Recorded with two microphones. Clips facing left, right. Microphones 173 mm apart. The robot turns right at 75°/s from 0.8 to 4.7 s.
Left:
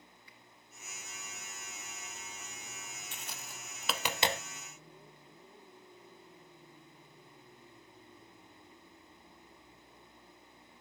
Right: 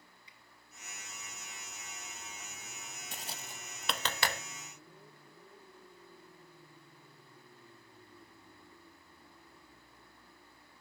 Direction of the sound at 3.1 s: 40° right (ahead or behind).